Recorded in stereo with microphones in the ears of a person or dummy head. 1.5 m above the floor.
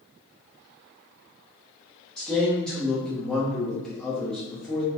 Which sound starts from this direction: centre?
A man speaking, at 2.2 s.